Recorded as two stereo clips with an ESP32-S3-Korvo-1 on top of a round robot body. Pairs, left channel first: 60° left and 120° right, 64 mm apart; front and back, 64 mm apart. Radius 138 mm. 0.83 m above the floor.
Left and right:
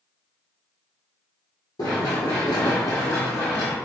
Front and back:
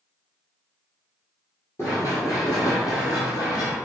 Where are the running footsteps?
60° left, 1.1 m; by 3.8 s 10° left, 1.5 m.